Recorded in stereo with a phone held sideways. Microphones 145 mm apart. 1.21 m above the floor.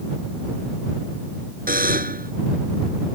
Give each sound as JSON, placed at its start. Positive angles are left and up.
{"t": 1.7, "sound": "a buzzer", "side_deg": -85}